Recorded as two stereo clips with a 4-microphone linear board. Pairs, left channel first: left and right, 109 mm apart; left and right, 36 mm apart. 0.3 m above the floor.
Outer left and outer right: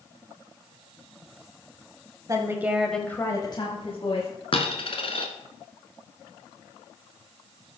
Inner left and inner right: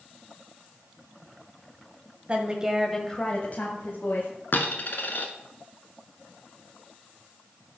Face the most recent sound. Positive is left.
turn(degrees=60)  # may be behind; listen again after turning